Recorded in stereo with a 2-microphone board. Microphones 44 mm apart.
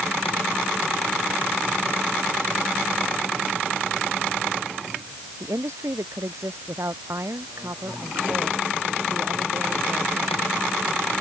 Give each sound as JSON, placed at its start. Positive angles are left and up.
{"t": 5.4, "sound": "a woman speaking", "side_deg": -75}